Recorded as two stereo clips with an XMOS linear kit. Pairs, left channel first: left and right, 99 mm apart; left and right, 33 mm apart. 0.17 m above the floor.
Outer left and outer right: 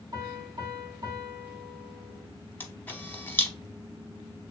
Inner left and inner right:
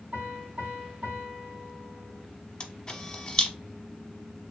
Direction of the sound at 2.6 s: 20° left (ahead or behind).